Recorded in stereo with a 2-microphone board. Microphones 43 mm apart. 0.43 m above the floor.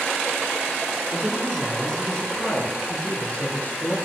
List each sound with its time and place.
1.1 s a man speaking: 5° left (ahead or behind), 5.5 m; by 4.0 s 45° left (ahead or behind), 6 m